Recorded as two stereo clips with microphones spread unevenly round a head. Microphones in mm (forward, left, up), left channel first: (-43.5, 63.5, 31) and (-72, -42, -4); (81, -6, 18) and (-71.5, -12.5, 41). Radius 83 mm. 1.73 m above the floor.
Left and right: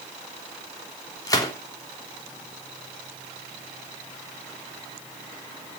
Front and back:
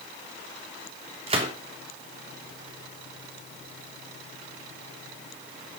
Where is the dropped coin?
No dropped coin in this recording.